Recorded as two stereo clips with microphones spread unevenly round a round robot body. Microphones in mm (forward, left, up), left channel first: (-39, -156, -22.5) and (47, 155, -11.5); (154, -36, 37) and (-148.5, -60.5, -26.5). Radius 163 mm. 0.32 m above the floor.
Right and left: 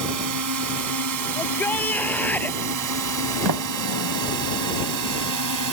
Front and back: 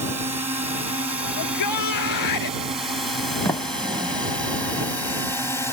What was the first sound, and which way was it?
A drone, 110° left.